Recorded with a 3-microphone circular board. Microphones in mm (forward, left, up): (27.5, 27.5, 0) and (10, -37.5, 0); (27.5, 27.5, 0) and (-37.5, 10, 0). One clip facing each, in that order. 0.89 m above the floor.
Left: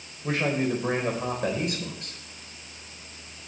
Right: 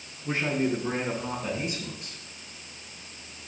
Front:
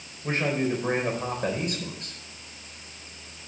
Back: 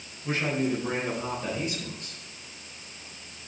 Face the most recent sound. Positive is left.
turn(degrees=45)